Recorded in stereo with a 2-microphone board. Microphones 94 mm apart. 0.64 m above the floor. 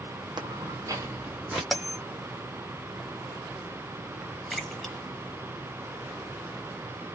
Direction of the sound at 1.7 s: Centre (ahead or behind).